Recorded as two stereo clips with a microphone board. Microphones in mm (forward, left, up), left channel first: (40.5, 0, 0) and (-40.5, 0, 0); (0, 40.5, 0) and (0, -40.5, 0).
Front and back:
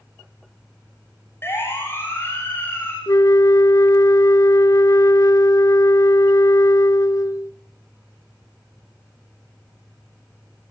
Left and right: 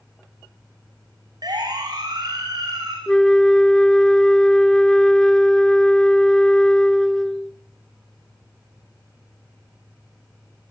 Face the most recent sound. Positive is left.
turn(degrees=10)